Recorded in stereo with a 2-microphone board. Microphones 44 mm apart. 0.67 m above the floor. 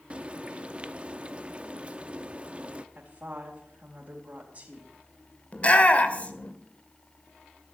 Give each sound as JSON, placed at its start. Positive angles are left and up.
{"t": 0.1, "sound": "frying", "side_deg": -30, "distance_m": 0.8}
{"t": 3.0, "sound": "a woman speaking", "side_deg": -45, "distance_m": 3.5}
{"t": 5.5, "sound": "a shout", "side_deg": 35, "distance_m": 2.0}